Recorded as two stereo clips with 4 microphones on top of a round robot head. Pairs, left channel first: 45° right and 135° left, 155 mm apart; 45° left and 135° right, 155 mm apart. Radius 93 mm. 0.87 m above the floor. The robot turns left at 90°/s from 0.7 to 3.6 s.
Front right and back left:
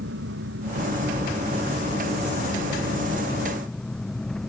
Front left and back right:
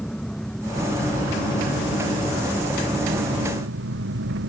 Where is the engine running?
130° left; by 4.5 s 130° right.